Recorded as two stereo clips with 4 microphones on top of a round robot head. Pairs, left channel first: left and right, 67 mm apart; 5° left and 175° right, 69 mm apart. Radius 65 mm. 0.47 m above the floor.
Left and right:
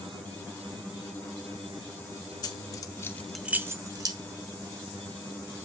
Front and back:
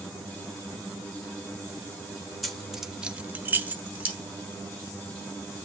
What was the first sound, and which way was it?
Keys jangling, 95° left.